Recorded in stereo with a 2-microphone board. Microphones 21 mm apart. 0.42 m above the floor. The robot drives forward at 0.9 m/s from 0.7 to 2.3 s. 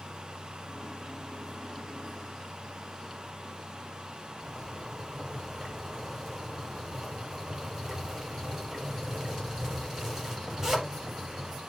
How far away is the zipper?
About 9 m.